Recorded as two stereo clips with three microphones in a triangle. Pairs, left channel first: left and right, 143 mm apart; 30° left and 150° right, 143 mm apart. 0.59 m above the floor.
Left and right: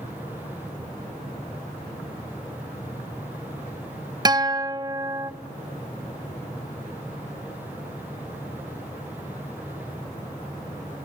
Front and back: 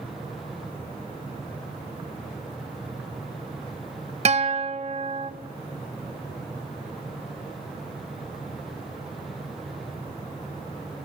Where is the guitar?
145° right, 0.5 m.